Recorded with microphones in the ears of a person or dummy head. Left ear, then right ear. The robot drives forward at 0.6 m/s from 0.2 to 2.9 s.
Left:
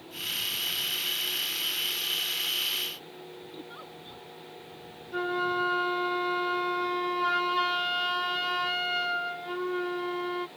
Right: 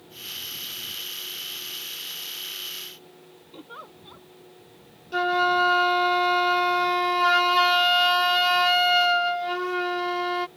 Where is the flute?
25° right (ahead or behind).